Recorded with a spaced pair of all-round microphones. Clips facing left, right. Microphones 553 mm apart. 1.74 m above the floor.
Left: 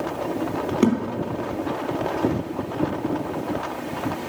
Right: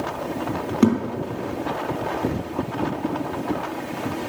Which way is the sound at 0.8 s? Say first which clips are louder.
Right 2 dB; 20° right (ahead or behind).